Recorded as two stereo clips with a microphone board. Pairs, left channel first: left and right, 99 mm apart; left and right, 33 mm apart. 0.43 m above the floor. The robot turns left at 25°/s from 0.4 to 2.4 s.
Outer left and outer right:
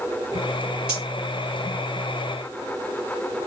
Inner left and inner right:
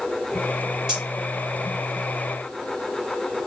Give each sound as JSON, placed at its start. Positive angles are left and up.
{"t": 0.9, "sound": "cutlery clinking", "side_deg": -10, "distance_m": 4.5}